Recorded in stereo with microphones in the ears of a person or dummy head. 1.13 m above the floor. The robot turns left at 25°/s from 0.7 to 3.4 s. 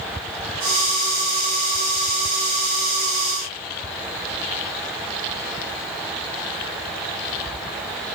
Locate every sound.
Only background noise.